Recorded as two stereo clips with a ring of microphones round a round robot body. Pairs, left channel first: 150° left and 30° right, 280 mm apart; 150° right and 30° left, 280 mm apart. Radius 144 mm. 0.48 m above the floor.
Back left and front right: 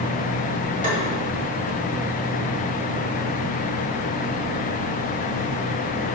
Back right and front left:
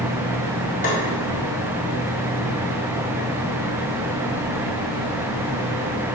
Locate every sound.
0.8 s tapping: 90° right, 1.7 m